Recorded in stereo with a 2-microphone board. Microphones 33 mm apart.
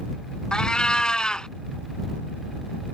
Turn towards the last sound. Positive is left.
turn(degrees=30)  # may be behind; listen again after turning